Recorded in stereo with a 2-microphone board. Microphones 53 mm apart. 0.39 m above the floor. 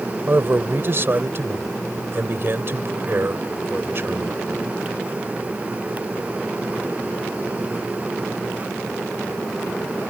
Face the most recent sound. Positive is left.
turn(degrees=-45)  # may be behind; listen again after turning